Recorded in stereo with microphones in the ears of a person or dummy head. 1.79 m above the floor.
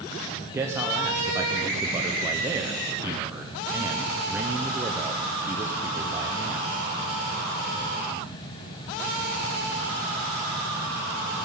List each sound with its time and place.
0.5 s a man speaking: 10° right (ahead or behind), 0.7 m